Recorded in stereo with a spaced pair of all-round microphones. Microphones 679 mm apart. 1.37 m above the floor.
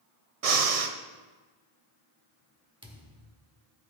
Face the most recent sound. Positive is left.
turn(degrees=-5)  # may be behind; listen again after turning